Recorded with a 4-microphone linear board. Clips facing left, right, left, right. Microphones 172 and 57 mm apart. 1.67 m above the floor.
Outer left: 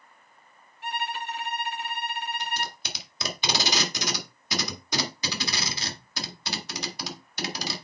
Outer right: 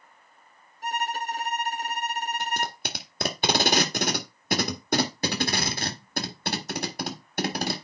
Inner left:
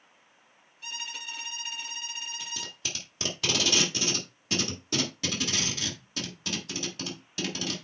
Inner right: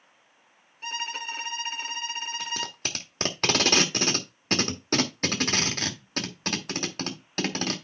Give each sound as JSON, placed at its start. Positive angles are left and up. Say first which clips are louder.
{"t": 0.8, "sound": "a violin", "louder": "outer right 3 dB, inner right 6 dB", "side_deg": -40, "distance_m": 0.7}
{"t": 2.4, "sound": "tape being pulled", "louder": "outer right 3 dB, inner right 6 dB", "side_deg": -55, "distance_m": 1.6}